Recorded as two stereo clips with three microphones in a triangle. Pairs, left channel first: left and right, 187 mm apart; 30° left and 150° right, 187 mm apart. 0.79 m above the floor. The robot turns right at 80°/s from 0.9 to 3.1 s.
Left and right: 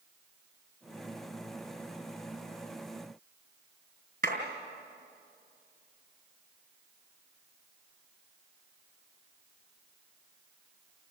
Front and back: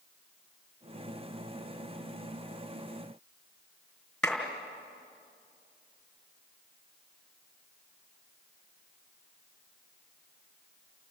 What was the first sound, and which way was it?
A clap, 60° right.